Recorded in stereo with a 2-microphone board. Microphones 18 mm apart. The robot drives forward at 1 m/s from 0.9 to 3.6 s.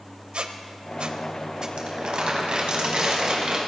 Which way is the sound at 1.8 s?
65° right (ahead or behind).